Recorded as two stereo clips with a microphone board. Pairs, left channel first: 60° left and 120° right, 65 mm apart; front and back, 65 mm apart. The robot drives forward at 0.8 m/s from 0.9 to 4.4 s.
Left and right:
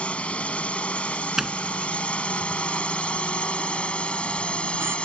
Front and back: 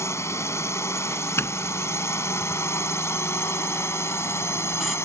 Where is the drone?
5° right.